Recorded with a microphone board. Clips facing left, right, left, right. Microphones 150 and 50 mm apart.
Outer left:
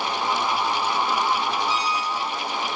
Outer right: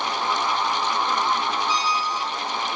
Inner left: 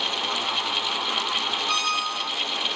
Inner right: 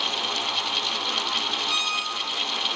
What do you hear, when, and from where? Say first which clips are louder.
1.7 s a squeak: even, inner left 2 dB; 55° left (ahead or behind), 2.5 m